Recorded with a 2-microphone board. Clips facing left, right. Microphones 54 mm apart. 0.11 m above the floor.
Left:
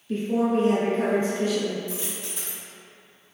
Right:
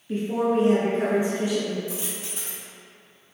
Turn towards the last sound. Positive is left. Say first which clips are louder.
# even
turn(degrees=-20)  # may be behind; listen again after turning